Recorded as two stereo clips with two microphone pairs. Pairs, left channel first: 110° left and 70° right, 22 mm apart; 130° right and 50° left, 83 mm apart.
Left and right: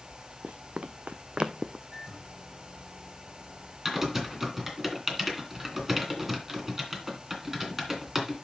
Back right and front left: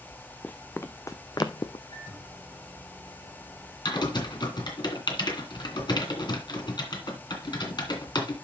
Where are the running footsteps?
60° right, 0.9 m; by 1.8 s 115° right, 0.7 m.